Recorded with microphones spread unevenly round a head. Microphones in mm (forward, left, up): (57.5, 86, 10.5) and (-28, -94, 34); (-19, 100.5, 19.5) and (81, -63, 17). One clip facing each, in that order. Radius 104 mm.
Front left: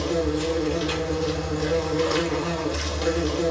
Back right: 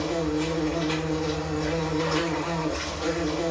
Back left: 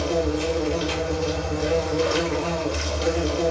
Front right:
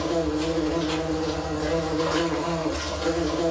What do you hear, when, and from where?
0.0 s an insect: 75° left, 0.9 m